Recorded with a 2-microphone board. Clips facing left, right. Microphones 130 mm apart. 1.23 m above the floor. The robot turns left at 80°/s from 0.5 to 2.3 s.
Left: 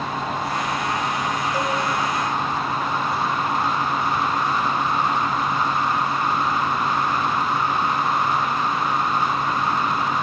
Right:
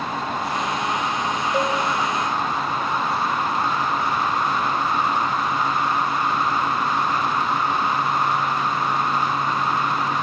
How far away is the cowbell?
About 7 m.